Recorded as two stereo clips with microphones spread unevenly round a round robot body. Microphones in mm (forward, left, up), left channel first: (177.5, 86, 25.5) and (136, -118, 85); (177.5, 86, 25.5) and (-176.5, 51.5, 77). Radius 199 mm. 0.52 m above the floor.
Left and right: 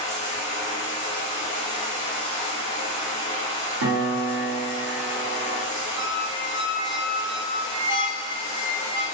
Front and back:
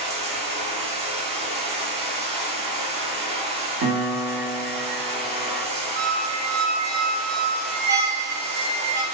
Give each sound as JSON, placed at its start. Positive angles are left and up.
{"t": 0.0, "sound": "running water", "azimuth_deg": 110, "distance_m": 0.8}
{"t": 3.8, "sound": "a piano", "azimuth_deg": -110, "distance_m": 0.7}
{"t": 6.0, "sound": "a squeak", "azimuth_deg": -160, "distance_m": 0.6}